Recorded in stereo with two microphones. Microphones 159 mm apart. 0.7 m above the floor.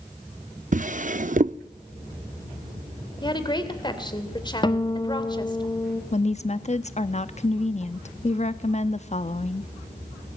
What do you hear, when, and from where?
0.7 s a drawer: 55° right (ahead or behind), 0.5 m
3.2 s a woman speaking: 30° left (ahead or behind), 2.5 m
4.6 s a guitar: 30° left (ahead or behind), 1.2 m
6.1 s a woman speaking: 45° left (ahead or behind), 0.7 m